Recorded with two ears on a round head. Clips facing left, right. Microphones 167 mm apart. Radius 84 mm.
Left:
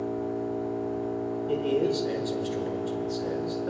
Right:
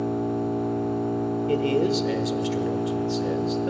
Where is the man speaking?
30° right (ahead or behind), 1.1 m.